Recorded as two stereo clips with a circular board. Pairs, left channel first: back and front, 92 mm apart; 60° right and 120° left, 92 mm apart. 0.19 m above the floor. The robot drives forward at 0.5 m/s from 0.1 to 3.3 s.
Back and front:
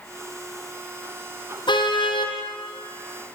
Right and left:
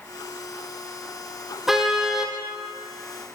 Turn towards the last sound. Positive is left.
turn(degrees=-160)